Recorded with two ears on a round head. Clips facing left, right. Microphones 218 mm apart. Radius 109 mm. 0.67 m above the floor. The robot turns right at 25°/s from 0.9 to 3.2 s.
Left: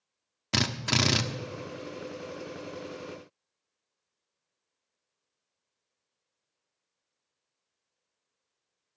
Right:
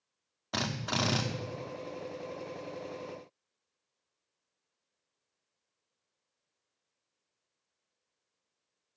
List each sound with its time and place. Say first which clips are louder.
0.5 s a drill: left 5 dB; 40° left (ahead or behind), 1.0 m; by 1.2 s 30° left (ahead or behind), 1.0 m